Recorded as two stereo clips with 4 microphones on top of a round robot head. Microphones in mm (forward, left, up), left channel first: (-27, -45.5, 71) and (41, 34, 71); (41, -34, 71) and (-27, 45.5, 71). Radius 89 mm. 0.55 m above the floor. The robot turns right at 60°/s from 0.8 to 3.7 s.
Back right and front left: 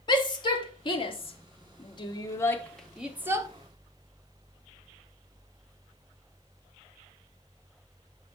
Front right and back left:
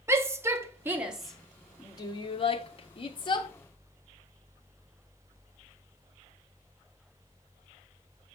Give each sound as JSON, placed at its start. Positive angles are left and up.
{"t": 0.1, "sound": "a shout", "azimuth_deg": -165, "distance_m": 1.4}